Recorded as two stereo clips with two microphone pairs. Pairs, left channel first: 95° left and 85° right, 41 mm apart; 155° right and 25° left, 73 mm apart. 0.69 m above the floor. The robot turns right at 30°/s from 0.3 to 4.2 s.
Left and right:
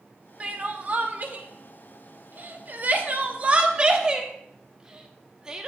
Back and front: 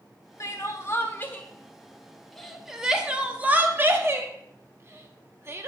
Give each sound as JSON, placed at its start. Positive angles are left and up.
{"t": 0.4, "sound": "crying", "azimuth_deg": -130, "distance_m": 1.0}